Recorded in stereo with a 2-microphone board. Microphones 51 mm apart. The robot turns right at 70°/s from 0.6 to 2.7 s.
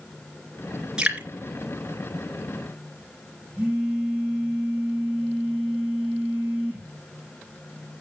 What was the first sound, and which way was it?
Dripping, 15° right (ahead or behind).